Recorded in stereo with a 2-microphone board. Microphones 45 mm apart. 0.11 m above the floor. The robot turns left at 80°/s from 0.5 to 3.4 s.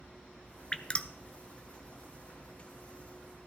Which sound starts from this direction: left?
Dripping, at 0.7 s.